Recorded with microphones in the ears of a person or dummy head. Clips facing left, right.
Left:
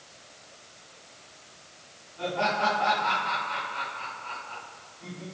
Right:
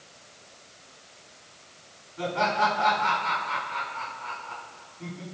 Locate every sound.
2.2 s laughter: 55° right (ahead or behind), 5 m